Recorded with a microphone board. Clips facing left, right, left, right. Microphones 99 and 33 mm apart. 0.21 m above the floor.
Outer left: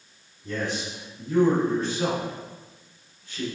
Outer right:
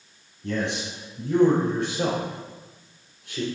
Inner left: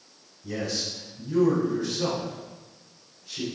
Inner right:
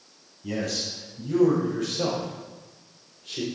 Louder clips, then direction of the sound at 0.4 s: Outer right 2 dB, inner right 1 dB; 75° right (ahead or behind).